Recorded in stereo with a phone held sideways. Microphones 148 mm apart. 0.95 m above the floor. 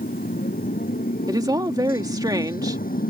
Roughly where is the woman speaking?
Right.